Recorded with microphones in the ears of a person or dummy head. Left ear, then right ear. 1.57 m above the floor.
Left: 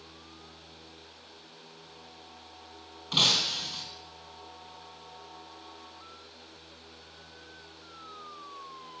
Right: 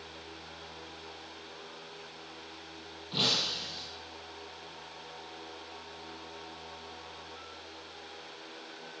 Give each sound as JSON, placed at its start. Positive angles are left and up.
{"t": 3.1, "sound": "breaking glass", "side_deg": 60, "distance_m": 3.5}